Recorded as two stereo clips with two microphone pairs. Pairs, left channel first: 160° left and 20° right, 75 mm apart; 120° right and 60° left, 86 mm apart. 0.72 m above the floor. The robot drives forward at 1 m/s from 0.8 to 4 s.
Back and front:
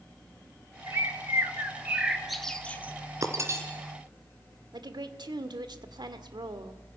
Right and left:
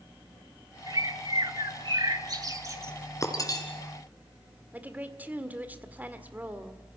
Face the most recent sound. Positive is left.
turn(degrees=-5)